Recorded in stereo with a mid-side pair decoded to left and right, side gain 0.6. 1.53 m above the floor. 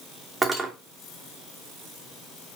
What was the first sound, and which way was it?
Cutlery clinking, 20° right.